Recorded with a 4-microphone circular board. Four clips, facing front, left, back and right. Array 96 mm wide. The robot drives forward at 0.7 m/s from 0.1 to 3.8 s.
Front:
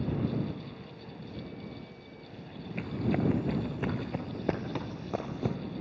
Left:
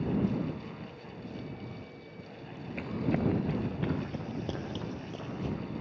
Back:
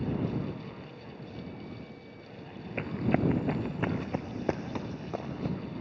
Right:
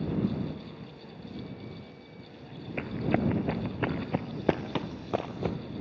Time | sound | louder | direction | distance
2.8 | running footsteps | right 2 dB, back 2 dB | 135° right | 1.4 m